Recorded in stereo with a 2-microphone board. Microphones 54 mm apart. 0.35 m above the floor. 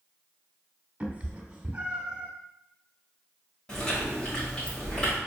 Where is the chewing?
20° left (ahead or behind), 1.5 m.